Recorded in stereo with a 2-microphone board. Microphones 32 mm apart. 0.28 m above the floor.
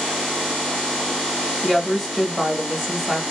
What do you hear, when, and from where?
1.6 s a woman speaking: 5° left (ahead or behind), 0.9 m